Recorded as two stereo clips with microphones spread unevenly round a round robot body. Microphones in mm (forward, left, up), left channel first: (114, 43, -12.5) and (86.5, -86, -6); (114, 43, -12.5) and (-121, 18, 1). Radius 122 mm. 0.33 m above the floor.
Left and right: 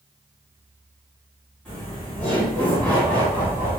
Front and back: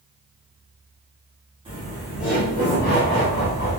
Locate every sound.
1.6 s laughter: 150° left, 1.2 m; by 3.8 s 15° left, 1.5 m